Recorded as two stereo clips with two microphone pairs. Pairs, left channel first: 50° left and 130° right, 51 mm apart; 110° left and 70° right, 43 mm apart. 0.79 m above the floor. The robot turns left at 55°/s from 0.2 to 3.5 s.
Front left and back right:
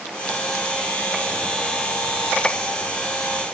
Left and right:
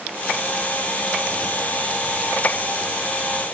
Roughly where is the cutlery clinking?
I don't hear cutlery clinking.